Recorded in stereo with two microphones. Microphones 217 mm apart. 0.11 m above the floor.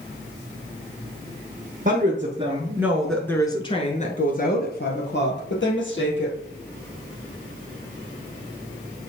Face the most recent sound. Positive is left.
turn(degrees=65)  # may be behind; listen again after turning